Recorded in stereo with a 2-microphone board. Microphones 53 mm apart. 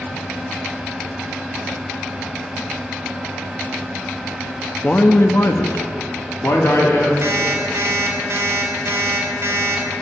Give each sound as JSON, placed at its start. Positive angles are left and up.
{"t": 4.8, "sound": "a man speaking", "side_deg": 30, "distance_m": 0.6}
{"t": 7.2, "sound": "an alarm clock", "side_deg": -65, "distance_m": 1.6}